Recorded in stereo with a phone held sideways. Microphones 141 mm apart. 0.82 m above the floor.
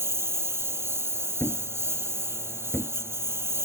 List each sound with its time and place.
0.0 s a lawn mower: 20° right (ahead or behind)
1.4 s a thud: 15° left (ahead or behind)